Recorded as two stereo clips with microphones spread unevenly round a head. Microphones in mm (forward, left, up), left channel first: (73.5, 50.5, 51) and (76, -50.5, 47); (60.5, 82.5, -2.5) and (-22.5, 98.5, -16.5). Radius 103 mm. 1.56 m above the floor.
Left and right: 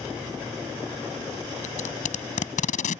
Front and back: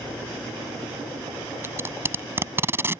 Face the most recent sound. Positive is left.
turn(degrees=105)